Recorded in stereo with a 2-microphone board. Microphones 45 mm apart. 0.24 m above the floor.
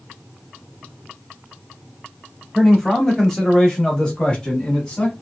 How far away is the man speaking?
About 1.1 m.